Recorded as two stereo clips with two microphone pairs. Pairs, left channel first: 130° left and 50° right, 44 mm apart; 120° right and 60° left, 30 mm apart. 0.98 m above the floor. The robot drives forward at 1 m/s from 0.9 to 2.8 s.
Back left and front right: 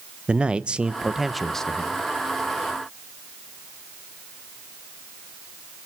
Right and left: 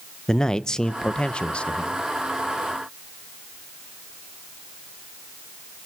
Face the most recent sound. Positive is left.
turn(degrees=-170)